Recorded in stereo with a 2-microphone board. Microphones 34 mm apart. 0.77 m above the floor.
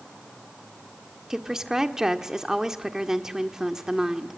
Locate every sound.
1.3 s a woman speaking: 15° right (ahead or behind), 1.6 m